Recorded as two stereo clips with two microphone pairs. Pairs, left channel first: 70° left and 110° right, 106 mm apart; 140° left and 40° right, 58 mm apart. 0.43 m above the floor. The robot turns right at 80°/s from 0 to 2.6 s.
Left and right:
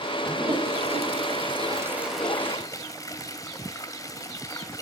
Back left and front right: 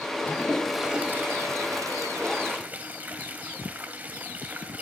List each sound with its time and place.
0.3 s a toilet flushing: 170° right, 1.7 m; by 4.8 s 20° left, 1.7 m